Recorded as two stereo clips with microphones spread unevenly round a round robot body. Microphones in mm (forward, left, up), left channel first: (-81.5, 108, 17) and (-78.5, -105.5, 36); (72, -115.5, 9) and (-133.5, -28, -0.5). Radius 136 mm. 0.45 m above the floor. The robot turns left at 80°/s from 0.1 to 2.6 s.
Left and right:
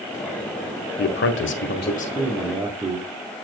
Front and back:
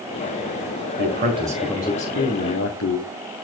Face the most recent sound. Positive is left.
turn(degrees=-10)